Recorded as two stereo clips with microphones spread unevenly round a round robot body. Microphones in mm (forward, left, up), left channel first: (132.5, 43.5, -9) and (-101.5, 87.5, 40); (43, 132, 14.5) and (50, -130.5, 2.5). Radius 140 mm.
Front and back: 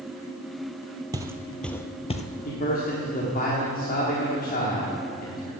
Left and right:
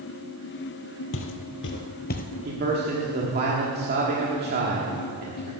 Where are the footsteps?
110° left, 0.9 m; by 2.2 s 50° left, 0.8 m.